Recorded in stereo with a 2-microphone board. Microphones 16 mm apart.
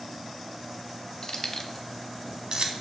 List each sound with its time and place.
1.2 s keys jangling: 45° left (ahead or behind), 0.9 m; by 2.7 s 55° right (ahead or behind), 1.0 m